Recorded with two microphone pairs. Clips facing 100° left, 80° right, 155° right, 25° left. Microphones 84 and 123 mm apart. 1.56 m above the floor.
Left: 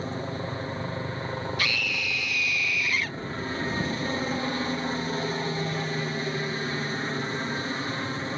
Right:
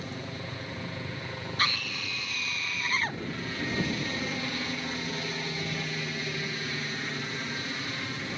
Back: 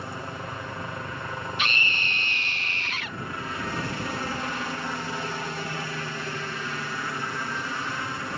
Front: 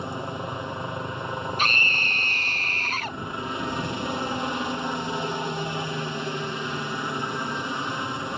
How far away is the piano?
I don't hear a piano.